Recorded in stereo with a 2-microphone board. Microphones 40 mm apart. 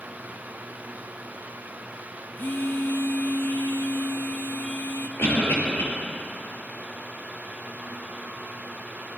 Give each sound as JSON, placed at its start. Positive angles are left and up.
{"t": 2.4, "sound": "a phone buzzing", "side_deg": 60, "distance_m": 0.6}
{"t": 5.2, "sound": "a cough", "side_deg": 65, "distance_m": 4.5}